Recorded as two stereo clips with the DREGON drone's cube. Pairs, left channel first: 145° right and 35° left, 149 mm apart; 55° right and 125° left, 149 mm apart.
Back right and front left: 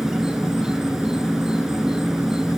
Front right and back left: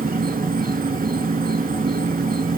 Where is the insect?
120° left, 0.7 m.